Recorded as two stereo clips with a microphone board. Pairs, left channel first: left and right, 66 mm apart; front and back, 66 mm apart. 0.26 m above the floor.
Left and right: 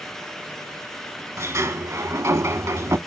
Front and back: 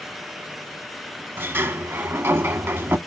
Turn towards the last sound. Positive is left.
turn(degrees=-125)